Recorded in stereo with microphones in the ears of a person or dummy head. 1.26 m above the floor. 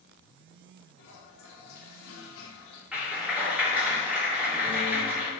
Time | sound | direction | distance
1.0 | a toilet flushing | 70° left (ahead or behind) | 3 m
2.9 | a clap | 5° right (ahead or behind) | 2.5 m